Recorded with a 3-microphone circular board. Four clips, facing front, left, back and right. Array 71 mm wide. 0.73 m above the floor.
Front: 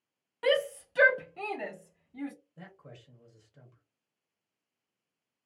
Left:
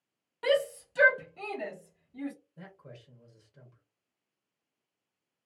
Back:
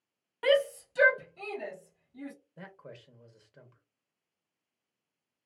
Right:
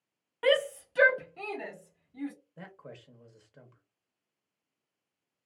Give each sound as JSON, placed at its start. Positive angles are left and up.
{"t": 0.4, "sound": "a shout", "azimuth_deg": -120, "distance_m": 0.6}
{"t": 2.6, "sound": "a man speaking", "azimuth_deg": -130, "distance_m": 0.6}